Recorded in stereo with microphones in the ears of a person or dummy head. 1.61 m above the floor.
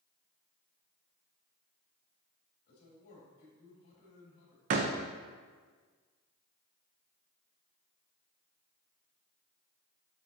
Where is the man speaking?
55° left (ahead or behind), 2.5 m.